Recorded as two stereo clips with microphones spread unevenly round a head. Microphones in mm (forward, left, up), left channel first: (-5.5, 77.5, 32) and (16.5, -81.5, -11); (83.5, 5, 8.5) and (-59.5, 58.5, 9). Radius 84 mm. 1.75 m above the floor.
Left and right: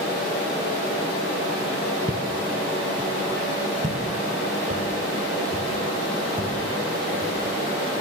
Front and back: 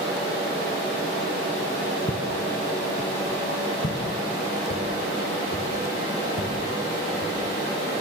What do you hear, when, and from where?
2.1 s footsteps: 25° right, 2 m; by 8.0 s 20° right, 7 m